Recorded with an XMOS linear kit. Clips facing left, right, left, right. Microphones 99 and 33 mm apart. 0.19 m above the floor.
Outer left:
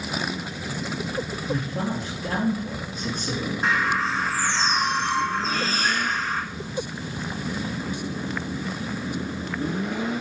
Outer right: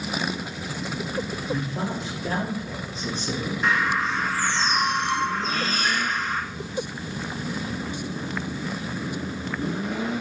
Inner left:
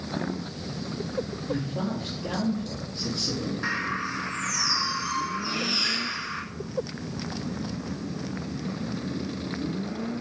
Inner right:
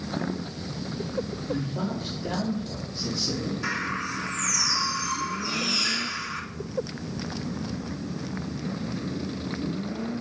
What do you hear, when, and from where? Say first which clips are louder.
1.5 s a man speaking: outer left 3 dB, inner left 1 dB; 50° left (ahead or behind), 4 m
3.6 s a bird: even, inner left 2 dB; 35° left (ahead or behind), 1.4 m